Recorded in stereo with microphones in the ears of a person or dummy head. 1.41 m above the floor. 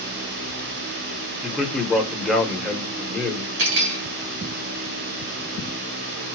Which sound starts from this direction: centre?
A man speaking, at 1.4 s.